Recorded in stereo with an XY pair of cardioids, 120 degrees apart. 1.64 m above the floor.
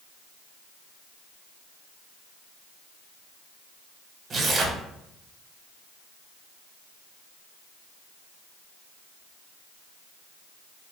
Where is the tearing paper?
35° right, 0.8 m.